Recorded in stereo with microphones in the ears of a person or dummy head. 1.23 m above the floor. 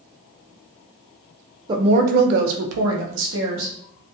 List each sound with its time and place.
1.7 s a woman speaking: 30° right (ahead or behind), 0.5 m; by 3.7 s 65° right (ahead or behind), 0.9 m